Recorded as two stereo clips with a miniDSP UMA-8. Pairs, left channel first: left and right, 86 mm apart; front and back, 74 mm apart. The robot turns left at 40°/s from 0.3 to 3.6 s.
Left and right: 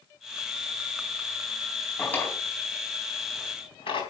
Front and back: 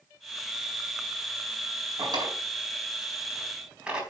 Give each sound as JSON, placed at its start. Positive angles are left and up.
{"t": 2.0, "sound": "a drawer", "azimuth_deg": 165, "distance_m": 4.0}